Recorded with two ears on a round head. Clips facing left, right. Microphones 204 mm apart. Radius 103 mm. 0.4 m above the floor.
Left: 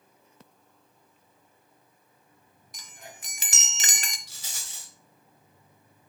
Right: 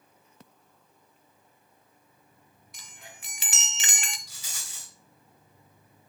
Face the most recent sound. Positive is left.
turn(degrees=30)  # may be behind; listen again after turning